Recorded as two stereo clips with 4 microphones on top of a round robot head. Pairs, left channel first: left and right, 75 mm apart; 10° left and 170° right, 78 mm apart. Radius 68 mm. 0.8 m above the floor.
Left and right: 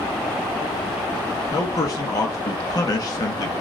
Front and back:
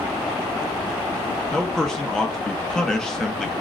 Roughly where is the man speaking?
Left.